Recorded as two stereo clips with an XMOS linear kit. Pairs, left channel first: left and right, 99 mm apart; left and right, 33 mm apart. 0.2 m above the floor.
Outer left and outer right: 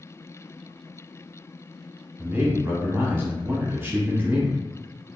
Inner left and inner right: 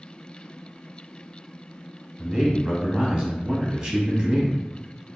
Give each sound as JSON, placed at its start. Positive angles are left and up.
{"t": 2.2, "sound": "a man speaking", "side_deg": -25, "distance_m": 1.2}